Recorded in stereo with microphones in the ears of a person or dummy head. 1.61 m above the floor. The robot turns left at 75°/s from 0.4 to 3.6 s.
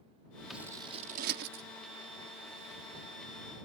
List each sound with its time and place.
0.5 s scissors: 5° right (ahead or behind); by 1.6 s 65° right (ahead or behind)